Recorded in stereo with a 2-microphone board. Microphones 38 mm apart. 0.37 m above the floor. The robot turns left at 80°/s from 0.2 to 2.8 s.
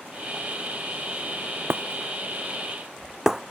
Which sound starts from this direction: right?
Breaking glass, at 1.7 s.